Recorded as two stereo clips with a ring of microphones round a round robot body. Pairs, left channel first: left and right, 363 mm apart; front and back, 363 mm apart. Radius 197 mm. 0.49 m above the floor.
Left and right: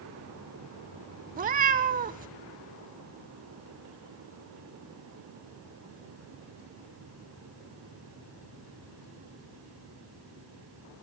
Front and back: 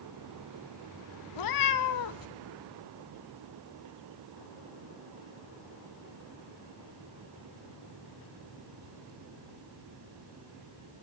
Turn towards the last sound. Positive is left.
turn(degrees=-25)